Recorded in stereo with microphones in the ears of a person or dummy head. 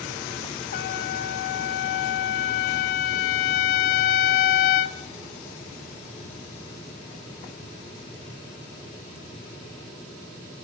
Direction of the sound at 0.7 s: 45° left (ahead or behind).